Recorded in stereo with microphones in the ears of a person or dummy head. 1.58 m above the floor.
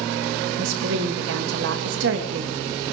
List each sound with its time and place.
0.6 s a woman speaking: 75° right (ahead or behind), 1.7 m